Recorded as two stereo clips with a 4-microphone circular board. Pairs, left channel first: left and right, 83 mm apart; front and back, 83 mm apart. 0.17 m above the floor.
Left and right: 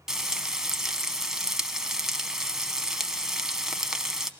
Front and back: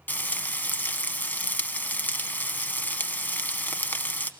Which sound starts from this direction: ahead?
Frying, at 0.1 s.